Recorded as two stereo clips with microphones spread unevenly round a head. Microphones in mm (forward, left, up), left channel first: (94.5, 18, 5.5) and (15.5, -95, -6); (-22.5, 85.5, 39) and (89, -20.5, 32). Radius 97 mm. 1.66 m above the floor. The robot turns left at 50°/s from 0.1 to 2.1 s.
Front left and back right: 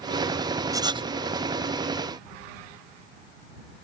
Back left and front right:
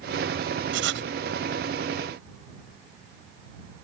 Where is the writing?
60° right; by 1.1 s 80° right.